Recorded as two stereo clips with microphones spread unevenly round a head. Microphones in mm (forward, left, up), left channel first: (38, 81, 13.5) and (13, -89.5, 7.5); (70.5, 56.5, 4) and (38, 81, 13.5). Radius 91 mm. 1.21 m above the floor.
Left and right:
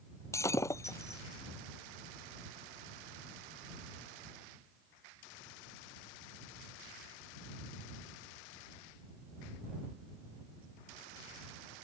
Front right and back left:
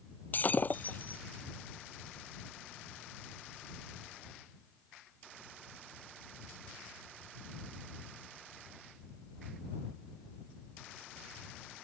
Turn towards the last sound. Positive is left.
turn(degrees=10)